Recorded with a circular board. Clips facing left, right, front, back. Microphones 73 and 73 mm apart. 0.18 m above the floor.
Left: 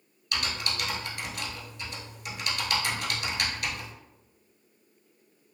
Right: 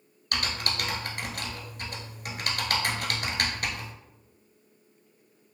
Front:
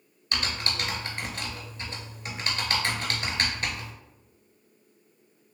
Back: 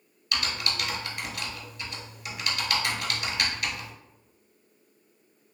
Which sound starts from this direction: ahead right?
Typing on a keyboard, at 0.3 s.